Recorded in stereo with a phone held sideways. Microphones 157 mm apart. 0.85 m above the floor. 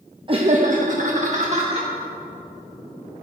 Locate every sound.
0.3 s laughter: 30° right (ahead or behind), 0.8 m; by 1.9 s 40° right (ahead or behind), 2 m